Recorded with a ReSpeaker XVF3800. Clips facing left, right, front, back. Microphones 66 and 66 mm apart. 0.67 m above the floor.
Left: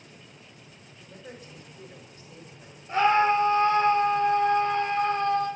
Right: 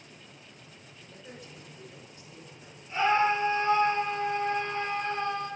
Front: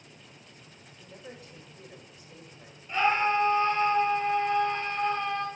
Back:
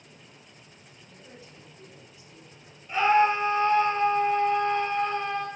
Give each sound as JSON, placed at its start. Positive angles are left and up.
{"t": 0.9, "sound": "a man speaking", "azimuth_deg": 35, "distance_m": 2.0}
{"t": 2.9, "sound": "a scream", "azimuth_deg": 95, "distance_m": 3.5}